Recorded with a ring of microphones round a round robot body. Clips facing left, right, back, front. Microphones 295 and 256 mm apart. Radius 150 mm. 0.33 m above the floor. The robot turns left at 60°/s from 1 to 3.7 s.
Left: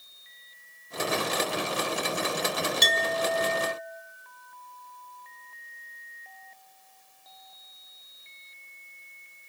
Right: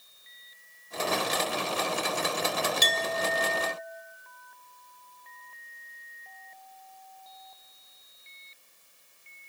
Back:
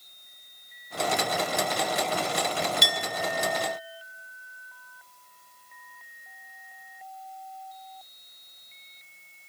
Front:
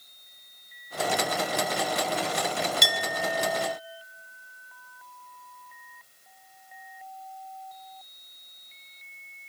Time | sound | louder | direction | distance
2.8 | a clink | left 2 dB, front 1 dB | 5° right | 0.7 m